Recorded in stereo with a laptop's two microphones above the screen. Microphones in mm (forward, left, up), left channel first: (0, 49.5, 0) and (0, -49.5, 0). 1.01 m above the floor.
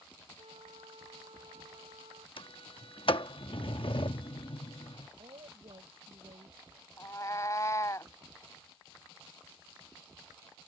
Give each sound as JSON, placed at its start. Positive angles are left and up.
{"t": 0.4, "sound": "a flute", "side_deg": -80}
{"t": 2.4, "sound": "a sliding door", "side_deg": 60}
{"t": 5.2, "sound": "a woman speaking", "side_deg": -70}
{"t": 7.0, "sound": "a cat meowing", "side_deg": 35}